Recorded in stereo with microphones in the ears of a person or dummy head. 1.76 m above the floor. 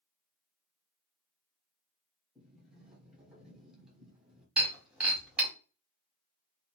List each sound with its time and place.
2.4 s a sliding door: 10° right (ahead or behind), 1.2 m
4.6 s breaking glass: 10° right (ahead or behind), 1.8 m